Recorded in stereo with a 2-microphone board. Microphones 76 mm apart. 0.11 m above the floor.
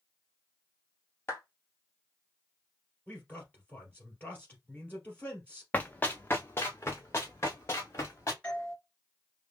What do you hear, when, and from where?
1.3 s a clap: 30° left (ahead or behind), 2 m
3.1 s a man speaking: 20° left (ahead or behind), 2.5 m
5.7 s running footsteps: 25° left (ahead or behind), 0.6 m; by 8.3 s 35° left (ahead or behind), 2 m
8.4 s a doorbell: 10° left (ahead or behind), 1.7 m